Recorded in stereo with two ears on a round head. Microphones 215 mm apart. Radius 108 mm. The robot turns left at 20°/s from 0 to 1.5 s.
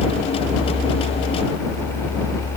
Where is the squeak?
No squeak in this recording.